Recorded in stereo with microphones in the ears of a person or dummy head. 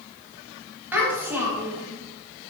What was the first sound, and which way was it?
A child speaking, 10° right (ahead or behind).